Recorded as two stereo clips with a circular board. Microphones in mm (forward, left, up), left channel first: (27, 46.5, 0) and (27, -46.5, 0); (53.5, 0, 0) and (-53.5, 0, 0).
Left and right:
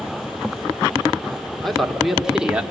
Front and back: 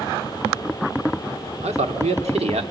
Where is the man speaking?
Straight behind, 2.5 m; by 2.6 s 165° right, 2 m.